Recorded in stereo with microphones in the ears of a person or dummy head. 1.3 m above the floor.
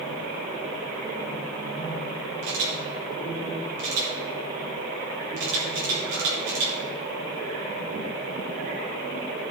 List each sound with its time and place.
2.4 s a camera shutter: 60° right (ahead or behind), 4 m